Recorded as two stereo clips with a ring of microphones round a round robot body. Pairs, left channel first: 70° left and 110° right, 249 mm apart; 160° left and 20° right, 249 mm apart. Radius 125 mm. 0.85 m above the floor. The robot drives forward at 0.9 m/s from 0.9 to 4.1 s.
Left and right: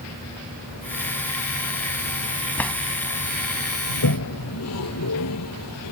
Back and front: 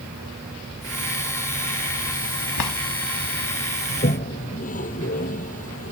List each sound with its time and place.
2.6 s a drawer: 150° left; by 2.8 s 155° left
3.9 s a toilet flushing: 95° left